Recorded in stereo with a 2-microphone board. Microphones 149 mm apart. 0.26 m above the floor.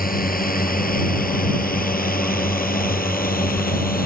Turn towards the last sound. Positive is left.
turn(degrees=80)